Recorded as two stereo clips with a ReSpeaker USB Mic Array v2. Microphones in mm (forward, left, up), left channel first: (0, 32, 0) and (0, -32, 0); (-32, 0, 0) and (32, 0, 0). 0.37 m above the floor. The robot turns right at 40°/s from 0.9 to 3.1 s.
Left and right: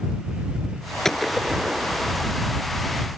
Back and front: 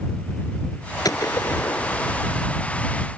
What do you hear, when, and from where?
1.1 s a gunshot: 175° left; by 2.3 s 135° right